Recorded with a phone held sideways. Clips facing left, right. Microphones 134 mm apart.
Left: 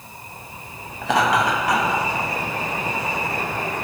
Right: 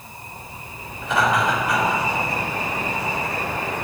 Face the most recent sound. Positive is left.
turn(degrees=75)  # may be behind; listen again after turning